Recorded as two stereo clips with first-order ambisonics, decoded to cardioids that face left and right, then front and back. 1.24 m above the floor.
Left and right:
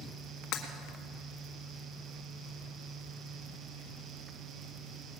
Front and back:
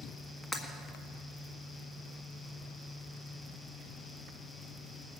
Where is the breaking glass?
80° left, 1.7 m.